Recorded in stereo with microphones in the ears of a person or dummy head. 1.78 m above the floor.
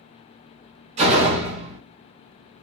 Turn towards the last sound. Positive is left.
turn(degrees=-35)  # may be behind; listen again after turning